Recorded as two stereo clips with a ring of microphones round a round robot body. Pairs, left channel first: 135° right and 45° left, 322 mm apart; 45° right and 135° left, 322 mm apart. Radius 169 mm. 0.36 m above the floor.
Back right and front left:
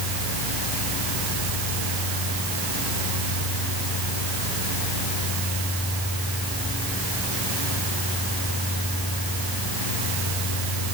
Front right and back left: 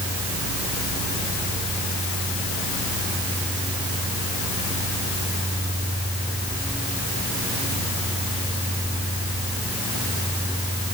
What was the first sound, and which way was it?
Only background noise.